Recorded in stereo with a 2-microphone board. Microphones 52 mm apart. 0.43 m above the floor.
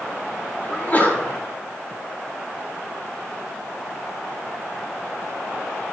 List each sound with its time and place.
0.7 s a sneeze: 30° left (ahead or behind), 1.0 m